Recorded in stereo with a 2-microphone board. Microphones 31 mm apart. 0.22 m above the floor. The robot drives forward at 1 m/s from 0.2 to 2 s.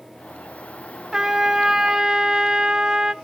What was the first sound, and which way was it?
A trumpet, 20° right (ahead or behind).